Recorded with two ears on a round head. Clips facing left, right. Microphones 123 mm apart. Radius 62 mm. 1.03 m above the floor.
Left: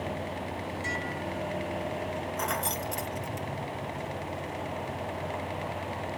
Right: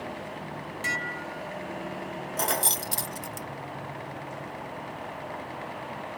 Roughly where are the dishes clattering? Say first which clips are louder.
Left 1 dB; right.